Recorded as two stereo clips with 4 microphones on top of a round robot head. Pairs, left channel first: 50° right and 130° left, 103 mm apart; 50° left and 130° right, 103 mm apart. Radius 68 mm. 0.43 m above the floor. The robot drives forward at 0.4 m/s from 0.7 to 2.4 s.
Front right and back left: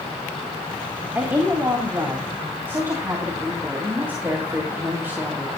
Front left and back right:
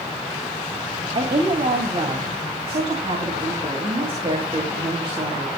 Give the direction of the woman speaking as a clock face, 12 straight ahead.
5 o'clock.